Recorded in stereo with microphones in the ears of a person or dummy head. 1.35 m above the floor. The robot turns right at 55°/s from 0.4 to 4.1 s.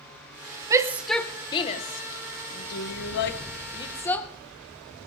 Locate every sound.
0.7 s a shout: 20° right (ahead or behind), 0.9 m; by 4.3 s 15° left (ahead or behind), 0.9 m